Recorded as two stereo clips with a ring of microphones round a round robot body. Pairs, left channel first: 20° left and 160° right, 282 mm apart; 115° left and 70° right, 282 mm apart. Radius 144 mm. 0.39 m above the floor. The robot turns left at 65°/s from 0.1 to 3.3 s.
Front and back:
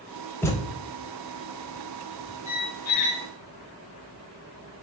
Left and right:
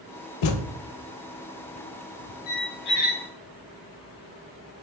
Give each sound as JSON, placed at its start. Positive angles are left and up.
{"t": 0.4, "sound": "a thud", "azimuth_deg": 105, "distance_m": 0.8}
{"t": 2.5, "sound": "a squeak", "azimuth_deg": 90, "distance_m": 0.9}